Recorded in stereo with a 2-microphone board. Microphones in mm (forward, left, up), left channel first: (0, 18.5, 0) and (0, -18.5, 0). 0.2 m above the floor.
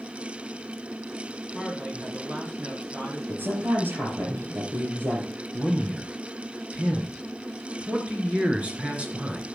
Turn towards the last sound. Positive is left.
turn(degrees=-35)  # may be behind; listen again after turning